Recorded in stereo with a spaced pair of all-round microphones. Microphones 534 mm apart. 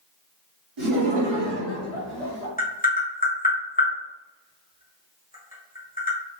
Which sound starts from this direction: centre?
Tapping, at 2.6 s.